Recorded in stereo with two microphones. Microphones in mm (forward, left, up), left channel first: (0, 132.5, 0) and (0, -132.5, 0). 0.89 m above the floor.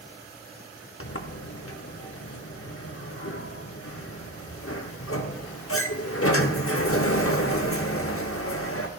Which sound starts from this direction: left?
A sliding door, at 1.0 s.